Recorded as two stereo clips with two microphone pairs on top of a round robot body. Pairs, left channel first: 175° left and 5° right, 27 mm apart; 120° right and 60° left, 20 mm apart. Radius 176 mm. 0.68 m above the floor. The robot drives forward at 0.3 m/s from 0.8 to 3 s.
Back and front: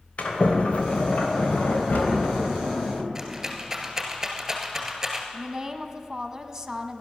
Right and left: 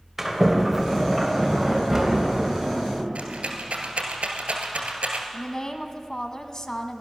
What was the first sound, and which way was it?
A sliding door, 140° left.